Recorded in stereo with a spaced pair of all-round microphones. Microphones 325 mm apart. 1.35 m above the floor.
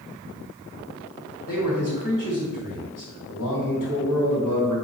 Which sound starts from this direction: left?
A man speaking, at 1.5 s.